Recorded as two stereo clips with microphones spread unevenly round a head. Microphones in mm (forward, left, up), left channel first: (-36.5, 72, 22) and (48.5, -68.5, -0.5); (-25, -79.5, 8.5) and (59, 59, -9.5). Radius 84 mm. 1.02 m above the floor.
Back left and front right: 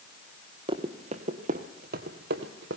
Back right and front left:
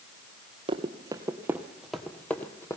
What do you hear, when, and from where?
0.7 s running footsteps: 5° left, 1.5 m; by 2.8 s 55° right, 1.8 m